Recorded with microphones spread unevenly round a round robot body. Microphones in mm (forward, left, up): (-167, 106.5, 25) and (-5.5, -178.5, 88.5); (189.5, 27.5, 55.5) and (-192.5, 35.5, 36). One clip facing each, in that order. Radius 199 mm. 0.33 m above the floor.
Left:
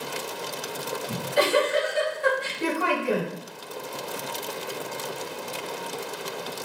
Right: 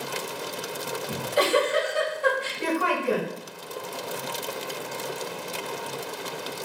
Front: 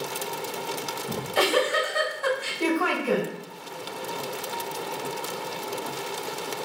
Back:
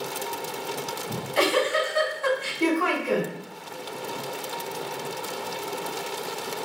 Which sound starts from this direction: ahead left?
A giggle, at 1.1 s.